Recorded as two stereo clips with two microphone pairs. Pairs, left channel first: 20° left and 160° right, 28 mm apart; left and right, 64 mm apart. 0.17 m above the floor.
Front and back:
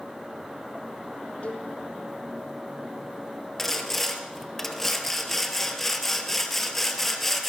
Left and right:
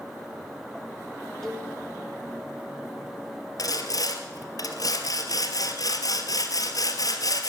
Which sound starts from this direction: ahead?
A cowbell, at 1.4 s.